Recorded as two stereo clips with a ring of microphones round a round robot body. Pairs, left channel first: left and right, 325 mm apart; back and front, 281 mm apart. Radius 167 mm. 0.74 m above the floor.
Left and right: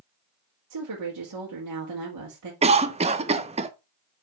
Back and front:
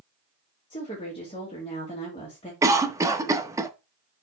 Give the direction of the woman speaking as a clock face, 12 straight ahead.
4 o'clock.